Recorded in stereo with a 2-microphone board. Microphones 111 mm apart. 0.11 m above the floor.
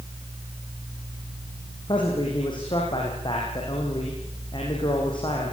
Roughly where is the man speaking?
Left.